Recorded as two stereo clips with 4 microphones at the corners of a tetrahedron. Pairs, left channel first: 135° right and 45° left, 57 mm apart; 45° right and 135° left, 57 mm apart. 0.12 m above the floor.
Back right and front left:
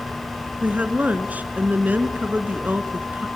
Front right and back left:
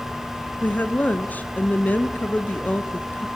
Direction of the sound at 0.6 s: Straight ahead.